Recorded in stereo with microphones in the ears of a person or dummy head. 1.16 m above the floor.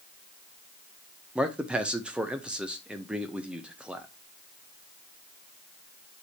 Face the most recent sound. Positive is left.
turn(degrees=-5)  # may be behind; listen again after turning